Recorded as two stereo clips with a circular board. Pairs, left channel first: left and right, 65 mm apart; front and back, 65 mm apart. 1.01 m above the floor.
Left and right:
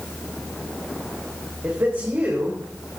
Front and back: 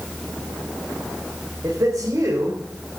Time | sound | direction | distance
1.6 | a man speaking | 140° right | 3.5 m